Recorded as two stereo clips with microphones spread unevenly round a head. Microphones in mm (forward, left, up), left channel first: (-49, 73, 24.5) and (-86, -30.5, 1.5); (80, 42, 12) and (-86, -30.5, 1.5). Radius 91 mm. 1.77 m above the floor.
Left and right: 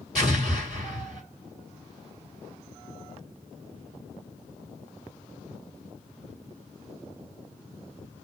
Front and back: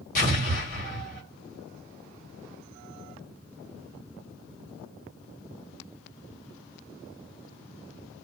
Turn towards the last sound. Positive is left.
turn(degrees=-10)